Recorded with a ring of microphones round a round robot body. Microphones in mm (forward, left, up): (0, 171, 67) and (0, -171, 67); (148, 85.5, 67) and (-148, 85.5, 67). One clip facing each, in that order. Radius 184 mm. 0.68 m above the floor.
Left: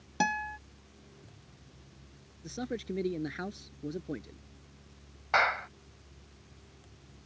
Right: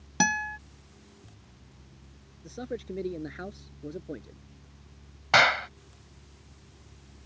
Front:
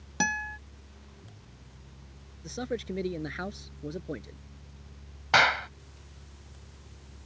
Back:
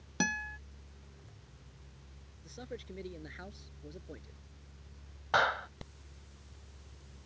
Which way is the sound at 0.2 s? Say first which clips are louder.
Right 4 dB, front 1 dB; 95° right.